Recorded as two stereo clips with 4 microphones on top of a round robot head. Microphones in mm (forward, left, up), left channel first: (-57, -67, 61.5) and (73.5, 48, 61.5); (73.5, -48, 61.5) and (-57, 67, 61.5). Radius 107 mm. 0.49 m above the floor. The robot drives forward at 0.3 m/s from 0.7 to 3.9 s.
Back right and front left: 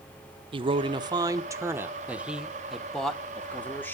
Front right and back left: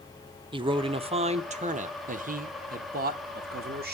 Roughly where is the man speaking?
Left.